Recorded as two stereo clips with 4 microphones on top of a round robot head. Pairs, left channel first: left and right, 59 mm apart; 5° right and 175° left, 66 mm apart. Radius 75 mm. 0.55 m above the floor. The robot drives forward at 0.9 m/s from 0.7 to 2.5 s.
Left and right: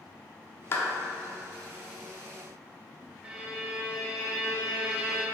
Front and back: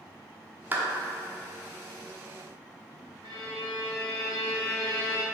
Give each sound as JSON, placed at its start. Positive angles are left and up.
{"t": 0.7, "sound": "a clap", "azimuth_deg": 120, "distance_m": 1.1}
{"t": 3.2, "sound": "a violin", "azimuth_deg": -165, "distance_m": 1.2}